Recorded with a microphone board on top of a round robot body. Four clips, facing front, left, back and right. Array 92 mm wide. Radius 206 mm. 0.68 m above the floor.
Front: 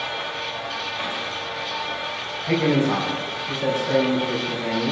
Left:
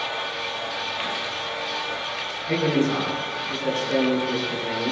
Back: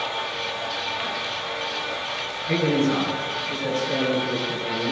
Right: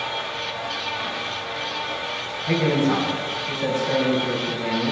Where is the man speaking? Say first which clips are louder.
Right 2 dB, front 1 dB; 50° right, 5.5 m.